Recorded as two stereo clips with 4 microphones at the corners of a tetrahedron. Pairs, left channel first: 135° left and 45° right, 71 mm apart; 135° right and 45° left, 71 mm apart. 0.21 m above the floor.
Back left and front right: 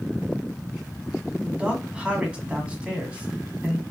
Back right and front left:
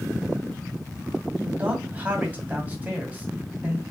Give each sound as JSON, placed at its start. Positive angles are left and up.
{"t": 1.4, "sound": "a man speaking", "azimuth_deg": 10, "distance_m": 1.7}